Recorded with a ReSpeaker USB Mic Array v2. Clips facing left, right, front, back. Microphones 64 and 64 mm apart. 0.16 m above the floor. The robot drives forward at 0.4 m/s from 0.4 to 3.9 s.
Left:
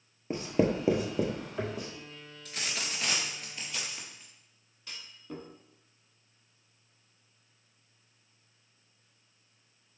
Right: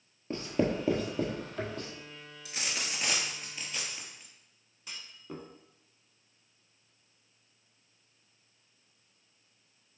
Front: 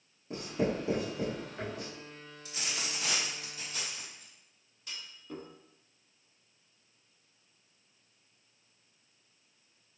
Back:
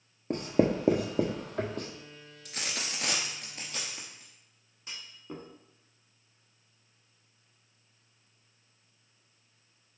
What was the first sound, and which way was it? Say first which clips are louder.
Writing: left 2 dB, back 6 dB; 165° left.